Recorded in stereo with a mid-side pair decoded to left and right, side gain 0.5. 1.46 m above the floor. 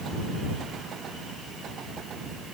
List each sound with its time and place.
Only background noise.